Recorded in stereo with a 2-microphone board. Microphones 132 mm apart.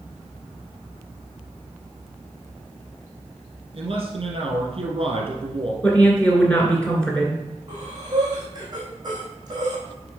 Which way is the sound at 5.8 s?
10° left (ahead or behind).